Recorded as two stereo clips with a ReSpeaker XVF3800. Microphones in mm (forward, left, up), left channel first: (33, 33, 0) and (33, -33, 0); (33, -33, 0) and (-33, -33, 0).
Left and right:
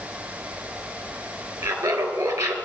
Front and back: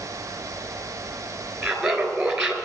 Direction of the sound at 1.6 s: 105° right.